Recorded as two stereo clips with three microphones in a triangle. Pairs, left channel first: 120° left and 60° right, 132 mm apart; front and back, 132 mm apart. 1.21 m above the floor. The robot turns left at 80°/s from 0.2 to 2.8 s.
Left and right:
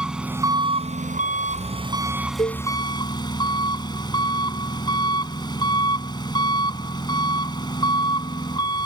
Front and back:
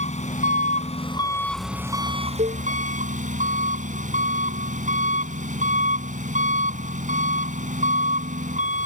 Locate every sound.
0.0 s an engine running: 25° left; by 8.9 s 175° left
2.4 s a cowbell: straight behind; by 2.6 s 160° left